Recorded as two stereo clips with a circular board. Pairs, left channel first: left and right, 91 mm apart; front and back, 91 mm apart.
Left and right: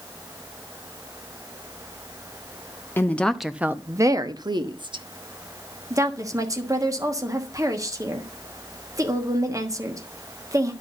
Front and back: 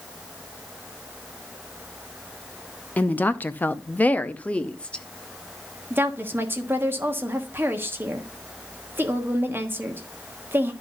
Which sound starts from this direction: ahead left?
A woman speaking, at 3.0 s.